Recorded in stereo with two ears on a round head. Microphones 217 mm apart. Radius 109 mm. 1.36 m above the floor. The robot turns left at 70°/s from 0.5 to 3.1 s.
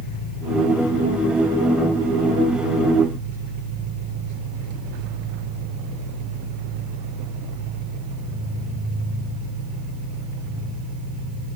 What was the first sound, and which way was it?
An engine running, 70° left.